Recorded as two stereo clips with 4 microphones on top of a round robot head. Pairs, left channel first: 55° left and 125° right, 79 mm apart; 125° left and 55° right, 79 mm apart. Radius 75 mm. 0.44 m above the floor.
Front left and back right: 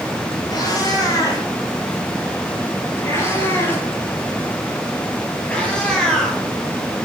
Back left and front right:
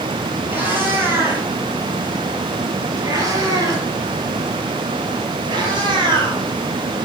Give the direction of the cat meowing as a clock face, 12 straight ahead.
12 o'clock.